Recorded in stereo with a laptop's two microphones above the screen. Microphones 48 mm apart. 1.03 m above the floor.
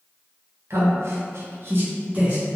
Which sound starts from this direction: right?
A man speaking, at 0.7 s.